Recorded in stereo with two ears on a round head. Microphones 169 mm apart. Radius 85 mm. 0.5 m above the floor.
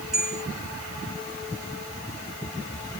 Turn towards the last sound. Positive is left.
turn(degrees=-5)  # may be behind; listen again after turning